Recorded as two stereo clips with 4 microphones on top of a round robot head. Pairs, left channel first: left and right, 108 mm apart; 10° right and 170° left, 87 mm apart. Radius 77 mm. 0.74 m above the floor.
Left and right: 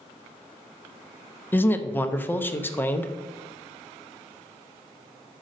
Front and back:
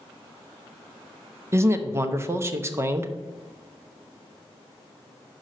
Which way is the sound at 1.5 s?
145° left.